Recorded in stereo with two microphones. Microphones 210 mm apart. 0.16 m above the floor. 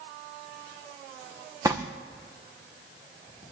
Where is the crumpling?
15° right (ahead or behind), 2.5 m.